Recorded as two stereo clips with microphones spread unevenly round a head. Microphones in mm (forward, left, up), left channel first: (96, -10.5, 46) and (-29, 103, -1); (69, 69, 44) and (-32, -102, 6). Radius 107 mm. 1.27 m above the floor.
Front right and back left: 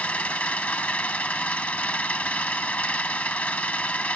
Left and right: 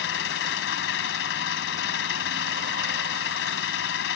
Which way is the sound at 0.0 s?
35° left.